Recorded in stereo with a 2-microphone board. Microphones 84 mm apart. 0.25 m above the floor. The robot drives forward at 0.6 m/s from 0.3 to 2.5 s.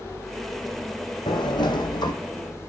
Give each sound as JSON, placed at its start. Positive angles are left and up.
{"t": 1.3, "sound": "a sliding door", "side_deg": 70, "distance_m": 2.5}